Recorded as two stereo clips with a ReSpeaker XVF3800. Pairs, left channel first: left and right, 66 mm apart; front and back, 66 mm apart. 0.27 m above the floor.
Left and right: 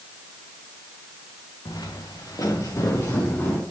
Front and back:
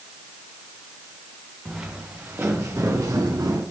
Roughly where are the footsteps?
Left.